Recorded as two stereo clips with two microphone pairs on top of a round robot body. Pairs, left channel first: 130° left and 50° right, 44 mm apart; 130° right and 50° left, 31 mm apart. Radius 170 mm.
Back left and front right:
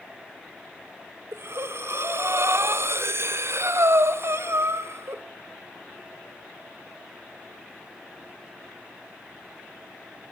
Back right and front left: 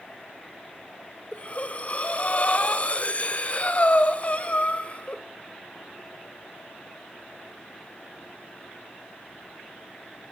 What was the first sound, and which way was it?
Breathing, 80° right.